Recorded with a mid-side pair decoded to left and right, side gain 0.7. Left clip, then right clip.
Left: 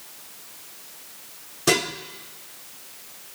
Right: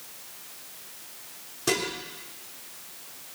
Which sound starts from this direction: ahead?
Dishes clattering, at 1.7 s.